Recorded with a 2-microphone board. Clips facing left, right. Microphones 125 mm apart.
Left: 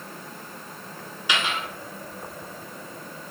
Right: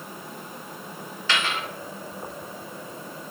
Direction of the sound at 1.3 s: 15° left (ahead or behind).